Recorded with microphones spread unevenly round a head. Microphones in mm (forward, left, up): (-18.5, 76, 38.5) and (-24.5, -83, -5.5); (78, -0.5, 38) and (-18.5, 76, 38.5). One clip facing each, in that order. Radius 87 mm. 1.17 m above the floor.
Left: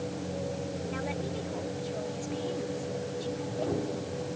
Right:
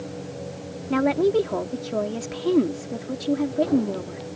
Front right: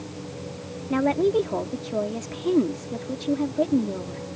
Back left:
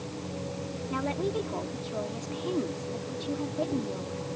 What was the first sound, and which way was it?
A woman speaking, 90° right.